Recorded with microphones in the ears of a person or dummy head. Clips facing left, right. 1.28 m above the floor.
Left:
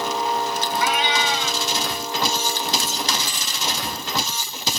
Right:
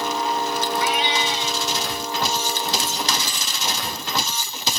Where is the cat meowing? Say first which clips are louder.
Left 1 dB; 50° left (ahead or behind).